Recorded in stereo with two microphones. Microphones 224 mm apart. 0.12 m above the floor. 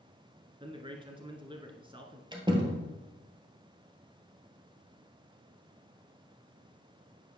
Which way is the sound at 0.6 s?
20° right (ahead or behind).